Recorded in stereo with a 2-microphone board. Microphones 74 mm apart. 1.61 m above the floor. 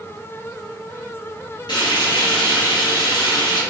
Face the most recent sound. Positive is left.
turn(degrees=70)  # may be behind; listen again after turning